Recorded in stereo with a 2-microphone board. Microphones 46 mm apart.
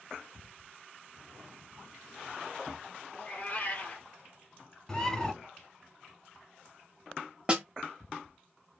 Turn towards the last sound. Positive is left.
turn(degrees=-25)  # may be behind; listen again after turning